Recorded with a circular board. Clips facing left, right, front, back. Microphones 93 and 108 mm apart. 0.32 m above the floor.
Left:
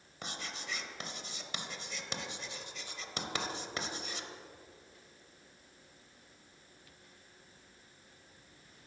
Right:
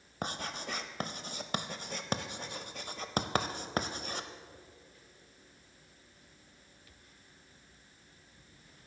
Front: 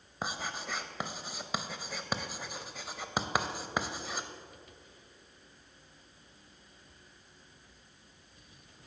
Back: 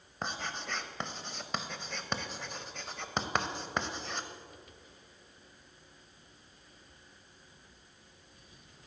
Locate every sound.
0.2 s writing: 80° right, 0.6 m